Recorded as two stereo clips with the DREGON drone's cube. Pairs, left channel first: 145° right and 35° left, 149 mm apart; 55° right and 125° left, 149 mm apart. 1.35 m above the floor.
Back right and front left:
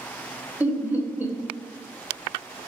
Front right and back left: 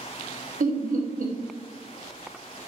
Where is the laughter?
110° left, 0.5 m.